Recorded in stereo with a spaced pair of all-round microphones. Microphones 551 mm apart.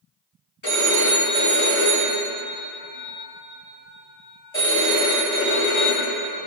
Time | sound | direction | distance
0.6 | a phone ringing | 55° left (ahead or behind) | 3 m